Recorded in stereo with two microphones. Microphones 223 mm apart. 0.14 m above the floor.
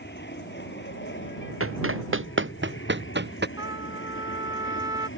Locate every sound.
0.0 s an aircraft: 50° left (ahead or behind); by 5.2 s 60° left (ahead or behind)
1.6 s running footsteps: 75° right (ahead or behind); by 3.5 s 50° right (ahead or behind)
3.6 s a trumpet: 15° right (ahead or behind)